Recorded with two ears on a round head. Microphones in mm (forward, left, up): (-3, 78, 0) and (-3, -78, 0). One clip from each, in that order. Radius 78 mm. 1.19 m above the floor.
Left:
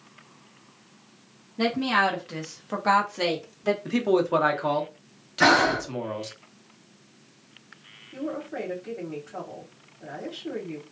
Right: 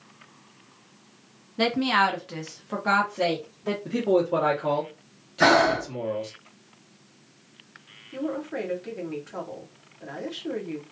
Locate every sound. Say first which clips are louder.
1.6 s a woman speaking: right 1 dB; 40° right (ahead or behind), 0.7 m; by 3.8 s 50° left (ahead or behind), 1.0 m
3.9 s a man speaking: right 3 dB; 45° left (ahead or behind), 0.8 m
5.4 s breathing: even; 15° left (ahead or behind), 0.9 m
8.1 s a woman speaking: right 2 dB; 35° right (ahead or behind), 1.2 m